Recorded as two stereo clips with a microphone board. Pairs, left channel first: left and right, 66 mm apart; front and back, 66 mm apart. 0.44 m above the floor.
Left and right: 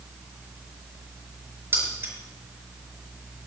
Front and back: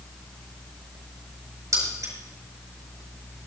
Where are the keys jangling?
140° right, 5 m.